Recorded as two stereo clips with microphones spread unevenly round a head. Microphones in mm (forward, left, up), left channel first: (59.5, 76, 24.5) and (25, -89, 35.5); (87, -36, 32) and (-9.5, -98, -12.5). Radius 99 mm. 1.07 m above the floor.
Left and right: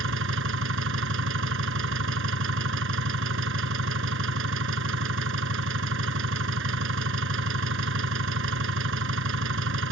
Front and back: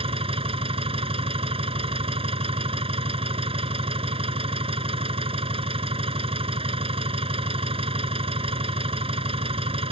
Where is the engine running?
105° right.